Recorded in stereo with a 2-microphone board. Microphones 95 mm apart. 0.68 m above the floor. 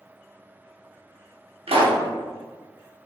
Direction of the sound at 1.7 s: 85° right.